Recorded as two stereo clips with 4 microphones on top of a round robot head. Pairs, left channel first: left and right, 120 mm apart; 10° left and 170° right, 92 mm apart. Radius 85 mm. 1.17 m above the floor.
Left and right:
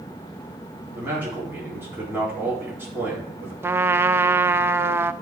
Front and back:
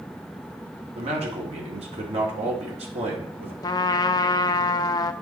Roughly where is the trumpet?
Ahead right.